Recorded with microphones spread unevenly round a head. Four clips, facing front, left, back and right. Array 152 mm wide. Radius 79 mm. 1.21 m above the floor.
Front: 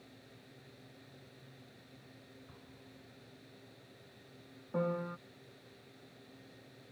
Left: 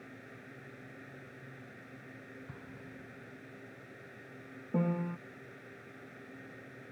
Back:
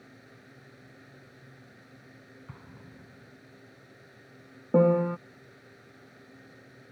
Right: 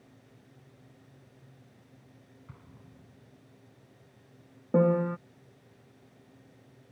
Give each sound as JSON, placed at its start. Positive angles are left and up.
{"t": 0.0, "sound": "a fan", "azimuth_deg": 105}
{"t": 2.5, "sound": "an explosion", "azimuth_deg": 155}
{"t": 4.7, "sound": "a piano", "azimuth_deg": -155}